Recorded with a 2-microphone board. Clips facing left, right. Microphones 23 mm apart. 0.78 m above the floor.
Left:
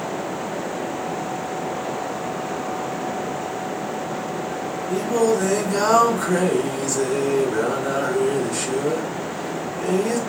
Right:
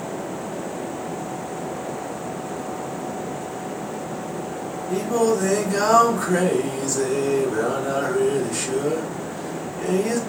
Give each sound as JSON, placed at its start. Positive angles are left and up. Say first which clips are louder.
{"t": 4.9, "sound": "singing", "louder": "left 1 dB", "side_deg": 10, "distance_m": 1.1}